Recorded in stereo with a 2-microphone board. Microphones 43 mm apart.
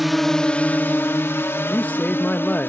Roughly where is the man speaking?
Left.